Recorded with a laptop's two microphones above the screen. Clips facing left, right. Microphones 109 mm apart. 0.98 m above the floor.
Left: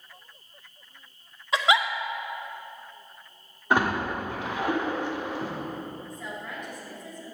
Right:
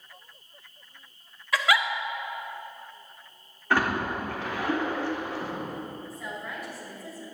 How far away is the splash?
About 1.5 m.